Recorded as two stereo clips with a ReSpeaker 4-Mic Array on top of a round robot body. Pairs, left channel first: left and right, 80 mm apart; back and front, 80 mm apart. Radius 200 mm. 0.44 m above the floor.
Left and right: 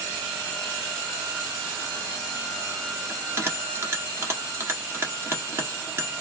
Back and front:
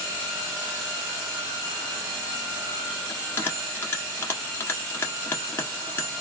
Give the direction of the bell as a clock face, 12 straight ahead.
4 o'clock.